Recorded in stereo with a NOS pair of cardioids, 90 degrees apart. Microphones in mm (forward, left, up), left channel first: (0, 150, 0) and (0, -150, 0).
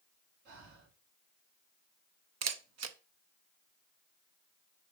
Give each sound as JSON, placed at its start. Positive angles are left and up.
{"t": 0.5, "sound": "breathing", "azimuth_deg": -70, "distance_m": 4.5}
{"t": 2.4, "sound": "a camera shutter", "azimuth_deg": -60, "distance_m": 1.3}